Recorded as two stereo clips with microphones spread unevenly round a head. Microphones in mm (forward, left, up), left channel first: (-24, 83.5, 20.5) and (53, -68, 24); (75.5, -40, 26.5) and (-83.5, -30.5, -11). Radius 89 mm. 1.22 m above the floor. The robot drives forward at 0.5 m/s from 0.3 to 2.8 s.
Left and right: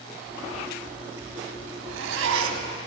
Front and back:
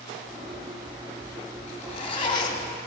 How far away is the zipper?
About 1.5 m.